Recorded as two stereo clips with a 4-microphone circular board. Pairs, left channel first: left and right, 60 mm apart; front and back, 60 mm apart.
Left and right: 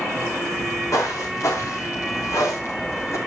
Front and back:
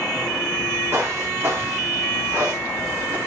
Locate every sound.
0.5 s footsteps: 125° left, 6 m; by 3.2 s 120° left, 4 m